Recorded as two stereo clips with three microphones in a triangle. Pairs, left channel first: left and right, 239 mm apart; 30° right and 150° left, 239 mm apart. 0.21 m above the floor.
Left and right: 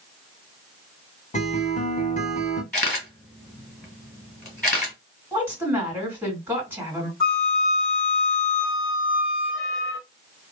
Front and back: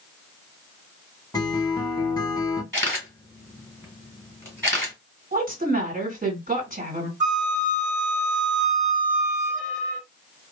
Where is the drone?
No drone in this recording.